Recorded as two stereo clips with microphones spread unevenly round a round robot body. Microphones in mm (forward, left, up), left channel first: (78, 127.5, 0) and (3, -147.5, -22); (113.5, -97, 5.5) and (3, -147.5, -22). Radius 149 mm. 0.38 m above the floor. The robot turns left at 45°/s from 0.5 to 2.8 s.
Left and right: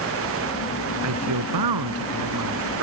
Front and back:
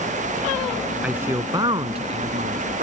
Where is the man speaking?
75° right; by 2.8 s 155° right.